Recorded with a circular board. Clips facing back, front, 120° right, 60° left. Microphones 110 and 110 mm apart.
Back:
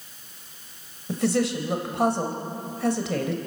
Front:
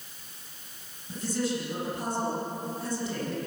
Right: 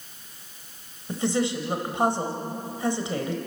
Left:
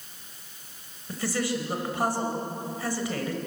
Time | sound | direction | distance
1.1 | a woman speaking | 170° left | 3.5 m